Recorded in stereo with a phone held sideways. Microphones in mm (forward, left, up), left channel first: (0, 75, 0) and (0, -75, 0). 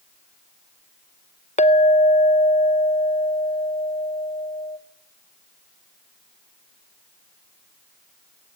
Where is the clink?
50° left (ahead or behind), 0.6 m.